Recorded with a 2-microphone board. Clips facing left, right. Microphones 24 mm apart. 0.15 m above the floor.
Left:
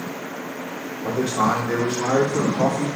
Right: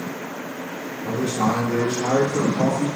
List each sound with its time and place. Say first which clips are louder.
1.0 s a man speaking: left 2 dB; 70° left (ahead or behind), 3.5 m; by 2.9 s 60° left (ahead or behind), 5 m